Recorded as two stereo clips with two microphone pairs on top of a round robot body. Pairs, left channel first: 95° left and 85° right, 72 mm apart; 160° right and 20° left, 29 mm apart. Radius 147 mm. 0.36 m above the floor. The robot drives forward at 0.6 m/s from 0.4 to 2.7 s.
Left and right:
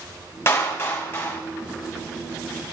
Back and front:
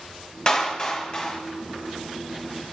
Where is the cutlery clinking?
No cutlery clinking in this recording.